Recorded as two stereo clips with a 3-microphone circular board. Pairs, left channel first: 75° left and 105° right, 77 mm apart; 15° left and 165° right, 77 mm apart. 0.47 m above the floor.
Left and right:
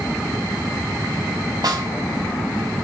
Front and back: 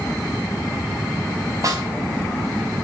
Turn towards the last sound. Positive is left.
turn(degrees=-130)